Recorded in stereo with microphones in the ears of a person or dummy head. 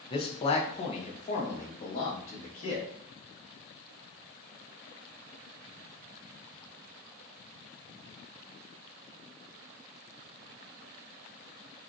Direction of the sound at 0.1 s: 20° left (ahead or behind).